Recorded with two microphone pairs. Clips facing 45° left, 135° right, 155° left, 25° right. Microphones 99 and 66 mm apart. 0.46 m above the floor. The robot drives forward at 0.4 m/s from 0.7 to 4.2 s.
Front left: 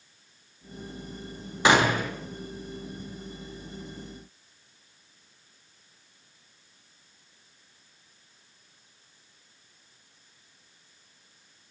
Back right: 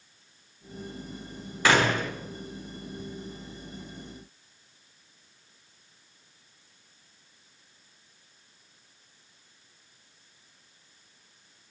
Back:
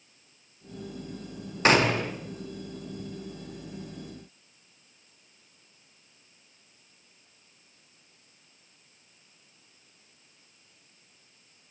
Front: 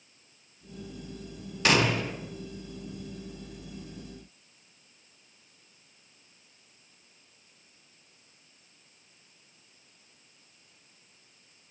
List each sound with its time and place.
1.6 s a gunshot: 110° left, 0.6 m; by 2.1 s 130° left, 0.6 m